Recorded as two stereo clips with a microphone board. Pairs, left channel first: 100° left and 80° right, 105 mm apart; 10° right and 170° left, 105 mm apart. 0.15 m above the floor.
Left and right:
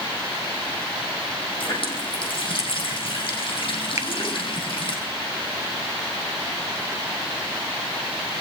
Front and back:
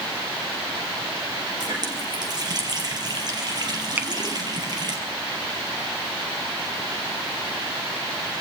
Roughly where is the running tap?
Behind left.